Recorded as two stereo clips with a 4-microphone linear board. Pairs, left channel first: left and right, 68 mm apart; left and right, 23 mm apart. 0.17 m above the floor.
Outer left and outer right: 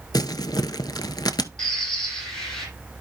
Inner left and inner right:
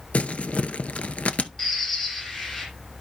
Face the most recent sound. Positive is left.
turn(degrees=10)  # may be behind; listen again after turning